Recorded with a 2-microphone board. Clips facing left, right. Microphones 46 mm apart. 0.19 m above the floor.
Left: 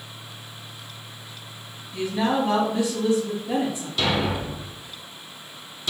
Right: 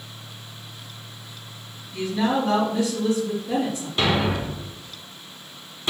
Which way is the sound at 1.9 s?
25° left (ahead or behind).